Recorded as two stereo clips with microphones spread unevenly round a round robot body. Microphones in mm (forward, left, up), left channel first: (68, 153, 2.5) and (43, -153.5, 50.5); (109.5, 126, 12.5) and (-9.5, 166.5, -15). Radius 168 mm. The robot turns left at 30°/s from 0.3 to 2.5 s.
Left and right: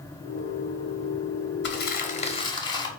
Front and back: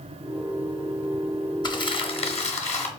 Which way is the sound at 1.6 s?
40° left.